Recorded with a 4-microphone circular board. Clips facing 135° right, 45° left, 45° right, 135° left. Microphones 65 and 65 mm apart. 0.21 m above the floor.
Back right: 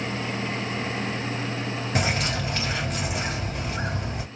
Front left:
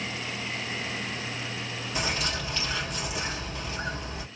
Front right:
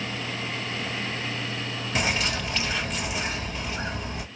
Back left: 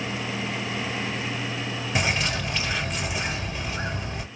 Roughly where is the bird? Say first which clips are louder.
Back right 4 dB, even; behind right.